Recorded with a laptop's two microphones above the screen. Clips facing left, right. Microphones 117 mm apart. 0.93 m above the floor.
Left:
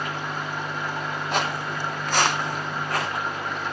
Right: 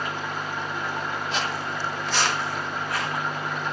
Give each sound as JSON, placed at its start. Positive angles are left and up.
{"t": 1.3, "sound": "footsteps", "side_deg": 55, "distance_m": 1.6}